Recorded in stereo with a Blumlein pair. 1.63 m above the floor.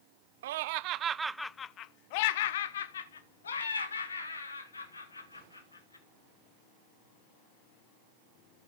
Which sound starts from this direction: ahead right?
Laughter, at 0.4 s.